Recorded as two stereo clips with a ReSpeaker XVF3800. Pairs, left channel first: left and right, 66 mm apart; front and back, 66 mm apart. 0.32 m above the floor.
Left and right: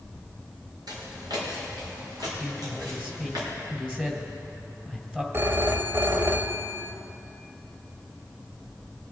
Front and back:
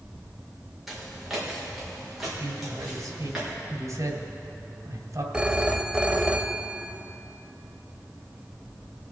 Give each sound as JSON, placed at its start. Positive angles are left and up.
{"t": 0.9, "sound": "footsteps", "azimuth_deg": -95, "distance_m": 4.0}
{"t": 2.4, "sound": "a man speaking", "azimuth_deg": -160, "distance_m": 2.0}
{"t": 5.3, "sound": "a phone ringing", "azimuth_deg": -110, "distance_m": 0.7}